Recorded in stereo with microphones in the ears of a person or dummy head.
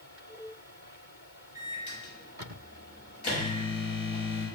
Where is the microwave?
30° left (ahead or behind), 1.0 m.